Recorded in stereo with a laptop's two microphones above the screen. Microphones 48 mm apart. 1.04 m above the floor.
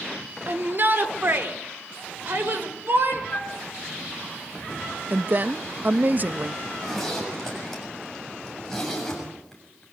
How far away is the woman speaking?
About 0.8 m.